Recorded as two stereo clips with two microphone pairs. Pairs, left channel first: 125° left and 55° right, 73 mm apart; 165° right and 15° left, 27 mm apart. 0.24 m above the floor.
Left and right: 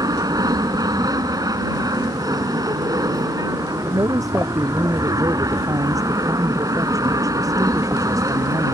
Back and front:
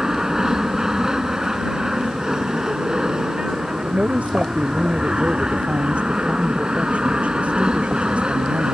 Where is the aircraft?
50° right; by 8.7 s 30° right.